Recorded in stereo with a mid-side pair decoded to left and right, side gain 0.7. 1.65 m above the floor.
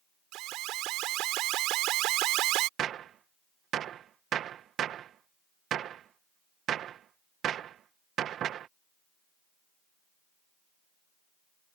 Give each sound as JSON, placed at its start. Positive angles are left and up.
{"t": 0.3, "sound": "an alarm", "azimuth_deg": -60}
{"t": 2.8, "sound": "a gunshot", "azimuth_deg": -45}